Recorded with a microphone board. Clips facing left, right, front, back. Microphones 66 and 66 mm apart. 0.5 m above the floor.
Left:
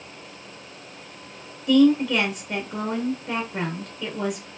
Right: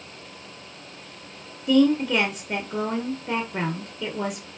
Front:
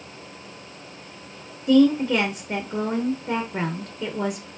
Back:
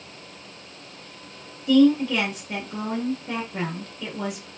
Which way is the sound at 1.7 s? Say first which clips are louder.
Left 2 dB, even; 30° right.